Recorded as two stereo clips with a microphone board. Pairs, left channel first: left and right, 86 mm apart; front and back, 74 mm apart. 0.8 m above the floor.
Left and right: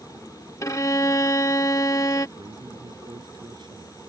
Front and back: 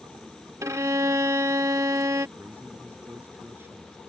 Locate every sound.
0.6 s a violin: 140° left
2.4 s a man speaking: 120° right